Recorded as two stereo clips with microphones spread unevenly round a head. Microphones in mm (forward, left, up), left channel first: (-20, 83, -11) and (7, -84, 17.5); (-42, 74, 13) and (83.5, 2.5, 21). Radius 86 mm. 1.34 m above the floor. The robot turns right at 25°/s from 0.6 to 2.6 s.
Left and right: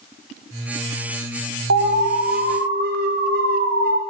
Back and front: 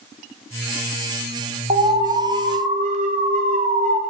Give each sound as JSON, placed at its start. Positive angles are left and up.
{"t": 1.7, "sound": "an alarm", "azimuth_deg": -75, "distance_m": 0.8}